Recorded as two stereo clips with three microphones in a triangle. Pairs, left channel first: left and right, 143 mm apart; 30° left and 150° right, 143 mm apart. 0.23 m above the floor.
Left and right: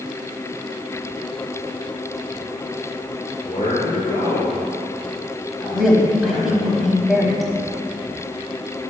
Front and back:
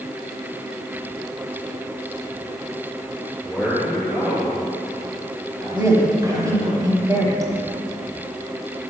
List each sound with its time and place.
3.4 s a man speaking: 125° left, 3 m; by 6.7 s 170° left, 3 m
5.7 s a woman speaking: 175° right, 1.2 m